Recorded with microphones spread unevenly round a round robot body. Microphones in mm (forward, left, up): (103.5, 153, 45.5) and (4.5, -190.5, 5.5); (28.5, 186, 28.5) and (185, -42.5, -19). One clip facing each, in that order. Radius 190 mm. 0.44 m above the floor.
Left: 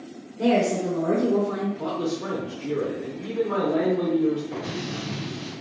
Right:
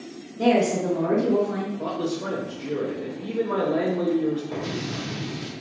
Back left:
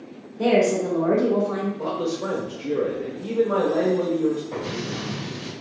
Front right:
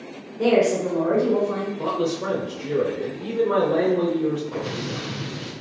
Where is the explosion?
160° right, 1.5 m.